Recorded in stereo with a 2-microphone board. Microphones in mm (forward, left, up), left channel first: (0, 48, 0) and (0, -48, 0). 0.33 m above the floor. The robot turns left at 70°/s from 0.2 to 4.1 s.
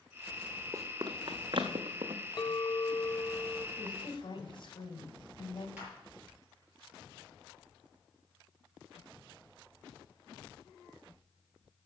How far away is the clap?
About 6.5 m.